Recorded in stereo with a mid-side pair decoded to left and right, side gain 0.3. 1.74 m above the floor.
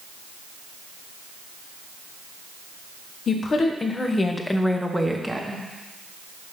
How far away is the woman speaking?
About 1.4 m.